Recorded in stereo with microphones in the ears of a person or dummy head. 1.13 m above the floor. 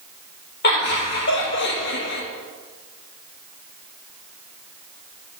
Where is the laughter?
55° left (ahead or behind), 2.5 m; by 2.2 s 60° left (ahead or behind), 1.5 m.